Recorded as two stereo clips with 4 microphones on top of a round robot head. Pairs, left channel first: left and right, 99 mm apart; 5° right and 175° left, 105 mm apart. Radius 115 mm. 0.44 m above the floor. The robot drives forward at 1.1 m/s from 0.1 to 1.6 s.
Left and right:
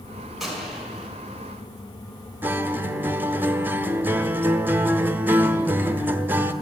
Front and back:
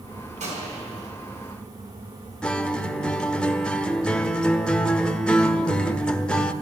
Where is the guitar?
70° right, 0.9 m.